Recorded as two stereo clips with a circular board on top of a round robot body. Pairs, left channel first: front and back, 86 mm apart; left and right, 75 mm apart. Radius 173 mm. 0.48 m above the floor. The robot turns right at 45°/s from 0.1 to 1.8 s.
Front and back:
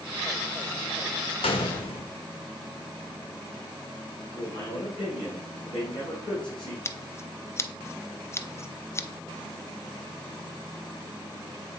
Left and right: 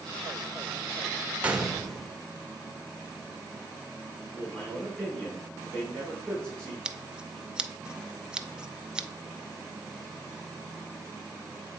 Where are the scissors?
20° right, 0.6 m.